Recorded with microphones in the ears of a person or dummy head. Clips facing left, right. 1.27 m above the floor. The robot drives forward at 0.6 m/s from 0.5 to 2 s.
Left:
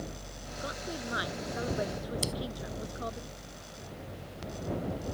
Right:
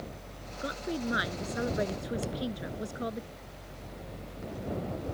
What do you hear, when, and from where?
0.6 s a woman speaking: 25° right (ahead or behind)
2.2 s scissors: 55° left (ahead or behind)